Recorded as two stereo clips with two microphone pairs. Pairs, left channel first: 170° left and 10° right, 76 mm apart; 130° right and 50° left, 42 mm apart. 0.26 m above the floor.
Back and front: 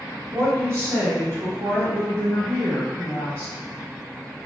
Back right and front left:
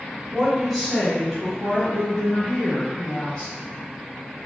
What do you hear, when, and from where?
0.3 s a woman speaking: 15° right, 1.2 m; by 3.5 s 65° right, 2.5 m